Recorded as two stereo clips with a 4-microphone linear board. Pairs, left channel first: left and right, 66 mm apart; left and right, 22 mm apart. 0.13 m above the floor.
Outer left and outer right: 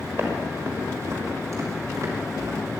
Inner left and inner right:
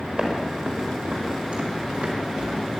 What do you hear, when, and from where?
0.1 s footsteps: 40° right (ahead or behind), 5 m; by 2.6 s 60° right (ahead or behind), 5 m